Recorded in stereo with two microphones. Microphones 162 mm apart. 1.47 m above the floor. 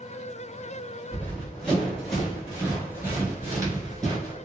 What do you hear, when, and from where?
1.1 s running footsteps: 10° left (ahead or behind), 1.7 m; by 4.3 s 25° right (ahead or behind), 1.6 m